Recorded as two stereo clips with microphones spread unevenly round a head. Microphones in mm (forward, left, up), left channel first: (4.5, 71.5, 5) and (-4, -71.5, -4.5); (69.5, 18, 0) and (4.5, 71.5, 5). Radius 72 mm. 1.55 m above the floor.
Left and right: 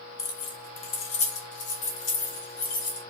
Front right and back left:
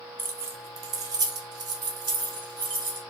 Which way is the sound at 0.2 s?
110° left.